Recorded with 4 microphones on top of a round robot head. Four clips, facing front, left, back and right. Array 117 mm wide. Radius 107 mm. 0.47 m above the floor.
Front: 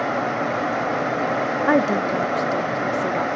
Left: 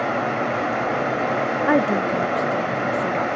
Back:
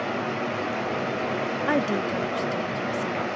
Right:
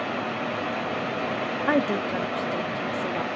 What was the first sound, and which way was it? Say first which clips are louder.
Running water: left 6 dB, front 5 dB; 45° left.